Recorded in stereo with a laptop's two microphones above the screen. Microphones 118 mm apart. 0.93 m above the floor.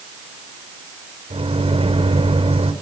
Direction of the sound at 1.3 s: 60° right (ahead or behind).